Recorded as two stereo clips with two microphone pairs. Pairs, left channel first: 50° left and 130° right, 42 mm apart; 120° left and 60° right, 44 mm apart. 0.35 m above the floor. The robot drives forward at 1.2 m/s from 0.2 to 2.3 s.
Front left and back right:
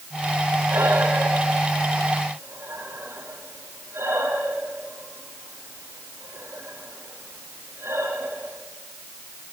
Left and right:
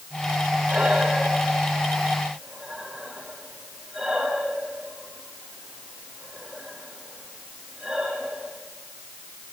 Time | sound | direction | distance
0.7 | breathing | 125° right | 8.5 m